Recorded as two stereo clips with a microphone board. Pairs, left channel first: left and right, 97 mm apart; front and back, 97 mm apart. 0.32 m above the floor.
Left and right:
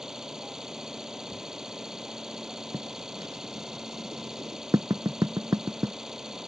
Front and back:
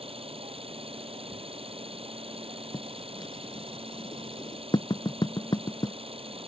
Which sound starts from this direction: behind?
An engine running, at 0.0 s.